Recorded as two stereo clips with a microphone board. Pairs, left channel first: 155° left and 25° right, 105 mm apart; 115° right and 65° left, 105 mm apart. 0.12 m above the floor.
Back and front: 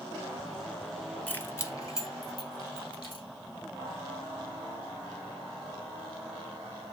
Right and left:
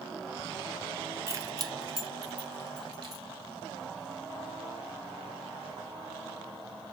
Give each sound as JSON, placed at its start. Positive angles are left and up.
{"t": 1.3, "sound": "keys jangling", "azimuth_deg": 90, "distance_m": 0.9}